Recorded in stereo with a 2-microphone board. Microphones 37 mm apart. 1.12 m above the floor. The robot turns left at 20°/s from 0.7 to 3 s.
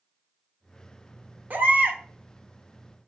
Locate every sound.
1.5 s a baby crying: 55° right (ahead or behind), 0.9 m; by 2.0 s 50° right (ahead or behind), 0.9 m